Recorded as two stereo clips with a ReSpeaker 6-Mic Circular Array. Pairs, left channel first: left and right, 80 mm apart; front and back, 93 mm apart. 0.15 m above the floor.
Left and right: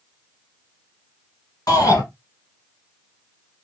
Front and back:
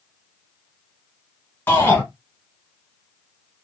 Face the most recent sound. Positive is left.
turn(degrees=65)